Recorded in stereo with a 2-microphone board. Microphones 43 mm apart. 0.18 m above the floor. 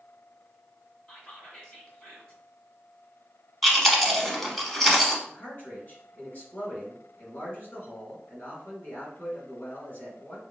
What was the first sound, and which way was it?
Whispering, 20° left (ahead or behind).